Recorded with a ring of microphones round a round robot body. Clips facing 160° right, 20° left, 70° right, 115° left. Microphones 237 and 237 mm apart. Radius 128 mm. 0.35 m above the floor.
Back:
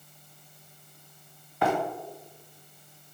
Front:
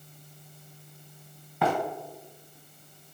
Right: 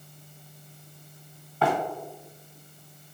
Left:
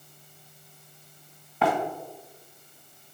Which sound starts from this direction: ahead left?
Running footsteps, at 1.6 s.